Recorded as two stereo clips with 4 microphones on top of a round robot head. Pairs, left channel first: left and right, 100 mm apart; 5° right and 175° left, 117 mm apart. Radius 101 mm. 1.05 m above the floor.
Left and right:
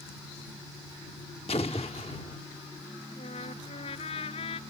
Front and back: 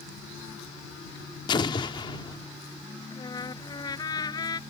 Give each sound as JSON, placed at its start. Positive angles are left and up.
{"t": 1.5, "sound": "an explosion", "azimuth_deg": 40}
{"t": 3.1, "sound": "a trumpet", "azimuth_deg": 50}